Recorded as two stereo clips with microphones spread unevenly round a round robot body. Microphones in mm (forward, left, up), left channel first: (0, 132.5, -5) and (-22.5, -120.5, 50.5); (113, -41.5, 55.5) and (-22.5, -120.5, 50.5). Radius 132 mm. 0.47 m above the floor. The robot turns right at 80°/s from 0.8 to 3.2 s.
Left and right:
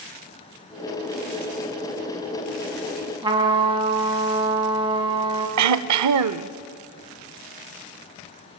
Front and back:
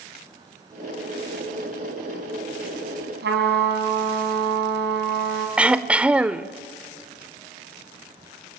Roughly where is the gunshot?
No gunshot in this recording.